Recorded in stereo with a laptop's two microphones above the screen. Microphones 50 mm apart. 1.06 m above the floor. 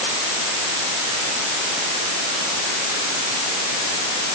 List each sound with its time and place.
Only background noise.